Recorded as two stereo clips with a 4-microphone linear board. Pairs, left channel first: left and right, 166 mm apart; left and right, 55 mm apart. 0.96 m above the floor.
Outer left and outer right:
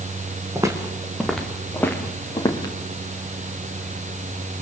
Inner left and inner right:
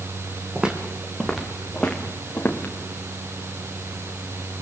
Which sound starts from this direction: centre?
Footsteps, at 0.6 s.